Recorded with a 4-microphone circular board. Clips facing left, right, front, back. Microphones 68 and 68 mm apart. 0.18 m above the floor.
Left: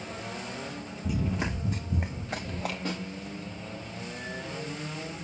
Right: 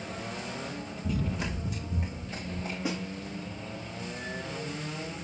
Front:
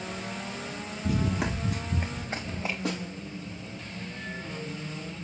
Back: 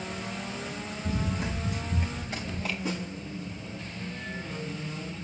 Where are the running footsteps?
5° left, 0.9 m; by 2.8 s 70° left, 1.4 m.